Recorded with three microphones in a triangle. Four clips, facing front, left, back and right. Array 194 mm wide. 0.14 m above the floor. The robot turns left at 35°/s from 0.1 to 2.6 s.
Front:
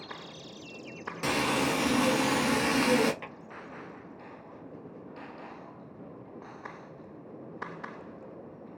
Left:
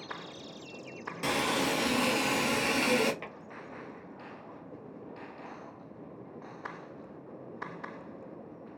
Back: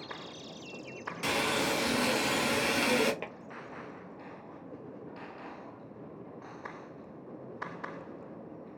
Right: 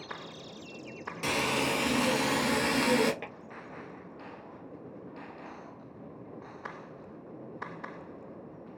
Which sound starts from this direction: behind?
Tapping, at 3.2 s.